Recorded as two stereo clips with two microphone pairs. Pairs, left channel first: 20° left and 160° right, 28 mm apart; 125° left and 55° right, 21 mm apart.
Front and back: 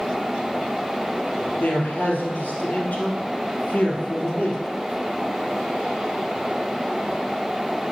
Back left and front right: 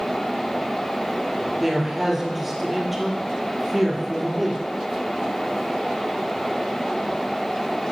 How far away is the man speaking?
About 2.5 m.